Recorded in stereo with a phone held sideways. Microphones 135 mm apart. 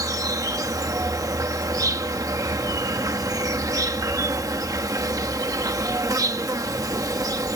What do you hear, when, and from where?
0.0 s an insect: 30° right (ahead or behind)